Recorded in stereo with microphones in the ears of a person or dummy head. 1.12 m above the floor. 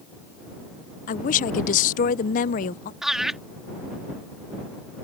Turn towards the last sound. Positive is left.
turn(degrees=0)  # may be behind; listen again after turning